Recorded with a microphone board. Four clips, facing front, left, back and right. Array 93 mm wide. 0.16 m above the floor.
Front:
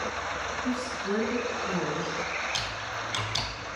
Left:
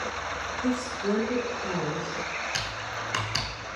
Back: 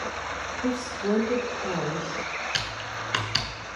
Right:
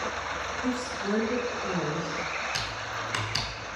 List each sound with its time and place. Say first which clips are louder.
0.6 s a woman speaking: left 4 dB, back 6 dB; 165° left, 4 m
2.5 s typing on a keyboard: even, back 1 dB; 170° left, 1.6 m